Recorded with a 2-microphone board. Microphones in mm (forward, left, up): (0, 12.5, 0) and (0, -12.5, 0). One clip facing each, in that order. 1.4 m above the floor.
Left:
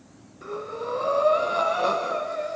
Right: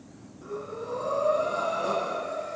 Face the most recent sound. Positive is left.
turn(degrees=50)  # may be behind; listen again after turning